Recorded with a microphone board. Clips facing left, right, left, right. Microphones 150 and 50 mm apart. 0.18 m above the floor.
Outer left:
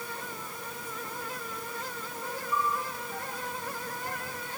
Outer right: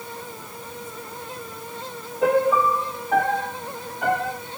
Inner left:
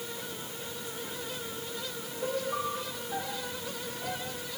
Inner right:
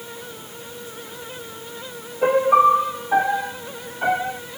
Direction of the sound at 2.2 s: 75° right (ahead or behind).